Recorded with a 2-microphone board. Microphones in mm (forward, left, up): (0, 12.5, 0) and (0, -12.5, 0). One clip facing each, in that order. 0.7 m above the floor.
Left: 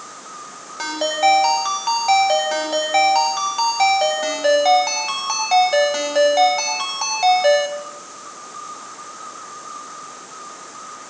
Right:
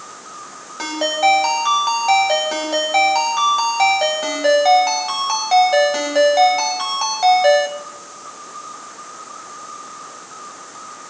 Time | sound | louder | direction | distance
0.8 | a ringtone | right 1 dB | centre (ahead or behind) | 2.5 m